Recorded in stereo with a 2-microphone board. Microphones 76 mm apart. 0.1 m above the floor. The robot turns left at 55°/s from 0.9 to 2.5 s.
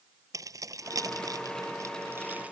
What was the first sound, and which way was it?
Keys jangling, 50° right (ahead or behind).